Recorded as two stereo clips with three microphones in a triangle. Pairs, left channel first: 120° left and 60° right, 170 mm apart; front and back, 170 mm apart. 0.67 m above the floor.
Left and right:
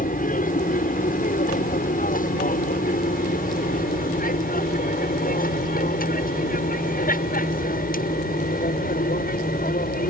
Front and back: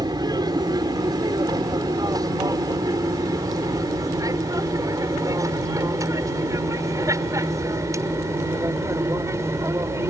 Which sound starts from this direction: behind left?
An aircraft, at 0.0 s.